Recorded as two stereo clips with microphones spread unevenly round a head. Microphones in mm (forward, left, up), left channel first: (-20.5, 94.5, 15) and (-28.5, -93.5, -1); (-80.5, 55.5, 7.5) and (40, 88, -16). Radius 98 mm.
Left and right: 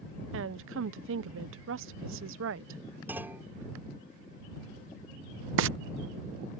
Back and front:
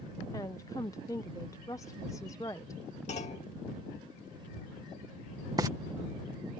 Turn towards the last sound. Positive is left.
turn(degrees=-60)